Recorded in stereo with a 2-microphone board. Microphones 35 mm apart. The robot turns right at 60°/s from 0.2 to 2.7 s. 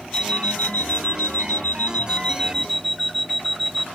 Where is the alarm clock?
25° left; by 3.9 s 175° left.